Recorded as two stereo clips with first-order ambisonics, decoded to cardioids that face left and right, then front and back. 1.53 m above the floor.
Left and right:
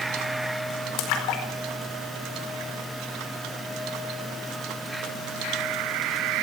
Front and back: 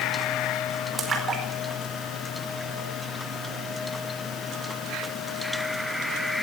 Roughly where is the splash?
Behind left.